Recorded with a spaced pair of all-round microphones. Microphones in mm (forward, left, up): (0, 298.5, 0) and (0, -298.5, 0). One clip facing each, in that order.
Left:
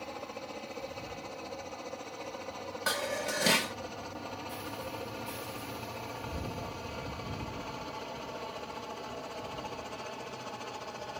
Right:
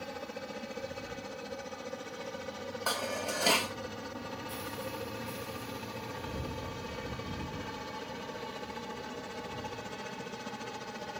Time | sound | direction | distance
0.0 | a helicopter | 40° right (ahead or behind) | ?
2.9 | dishes clattering | 45° left (ahead or behind) | ?